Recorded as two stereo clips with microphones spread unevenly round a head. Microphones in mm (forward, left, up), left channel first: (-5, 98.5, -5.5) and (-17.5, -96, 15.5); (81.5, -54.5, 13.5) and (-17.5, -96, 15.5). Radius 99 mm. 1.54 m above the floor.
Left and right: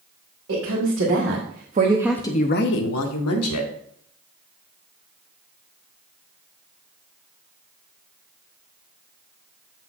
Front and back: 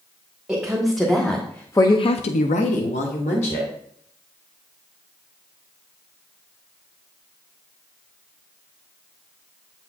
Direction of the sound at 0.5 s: 70° right.